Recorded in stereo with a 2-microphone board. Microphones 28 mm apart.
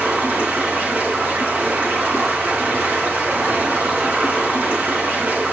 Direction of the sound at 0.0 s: 75° right (ahead or behind).